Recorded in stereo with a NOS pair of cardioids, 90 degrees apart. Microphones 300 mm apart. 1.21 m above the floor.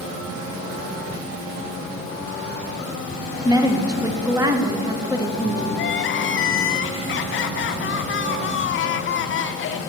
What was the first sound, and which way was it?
A woman speaking, 10° right.